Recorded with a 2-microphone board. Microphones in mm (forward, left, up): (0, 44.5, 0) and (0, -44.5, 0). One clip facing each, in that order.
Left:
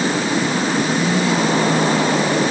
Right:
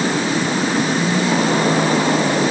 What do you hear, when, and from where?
Only background noise.